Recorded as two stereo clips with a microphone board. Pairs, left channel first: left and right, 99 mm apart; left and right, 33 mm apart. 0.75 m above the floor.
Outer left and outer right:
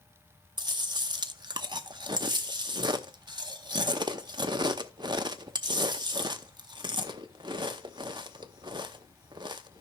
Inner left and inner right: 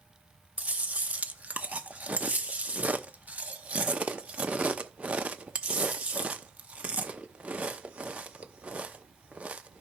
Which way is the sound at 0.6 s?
50° right (ahead or behind).